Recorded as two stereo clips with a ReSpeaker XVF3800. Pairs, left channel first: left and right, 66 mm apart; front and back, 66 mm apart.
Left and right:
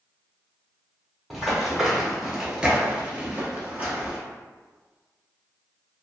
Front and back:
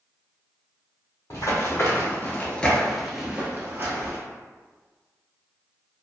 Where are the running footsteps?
Straight ahead, 1.1 m; by 4.2 s 155° right, 1.0 m.